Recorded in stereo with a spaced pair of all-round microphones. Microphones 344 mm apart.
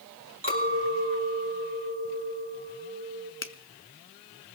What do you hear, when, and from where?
0.4 s a clink: 40° right (ahead or behind), 4.5 m
3.4 s a finger snap: 35° left (ahead or behind), 0.8 m